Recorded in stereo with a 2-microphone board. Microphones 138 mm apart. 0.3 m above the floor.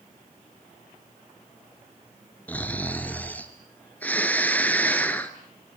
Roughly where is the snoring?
Centre.